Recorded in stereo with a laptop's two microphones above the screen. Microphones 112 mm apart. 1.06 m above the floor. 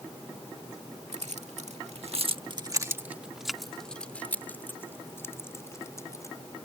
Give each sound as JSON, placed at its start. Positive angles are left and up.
{"t": 1.1, "sound": "keys jangling", "side_deg": -85}